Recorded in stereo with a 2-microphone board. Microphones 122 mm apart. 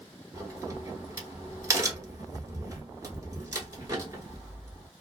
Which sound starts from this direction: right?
A crack, at 0.3 s.